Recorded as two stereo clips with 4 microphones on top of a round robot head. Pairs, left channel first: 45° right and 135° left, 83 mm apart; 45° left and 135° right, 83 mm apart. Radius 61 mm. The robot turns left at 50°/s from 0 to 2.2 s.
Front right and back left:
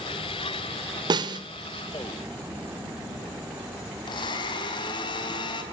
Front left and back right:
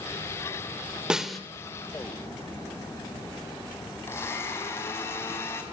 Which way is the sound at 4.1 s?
15° right.